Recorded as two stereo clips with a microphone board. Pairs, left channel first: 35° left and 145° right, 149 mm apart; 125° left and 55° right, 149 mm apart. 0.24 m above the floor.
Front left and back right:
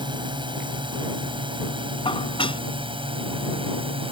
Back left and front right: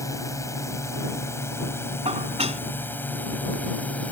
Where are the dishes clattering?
15° right.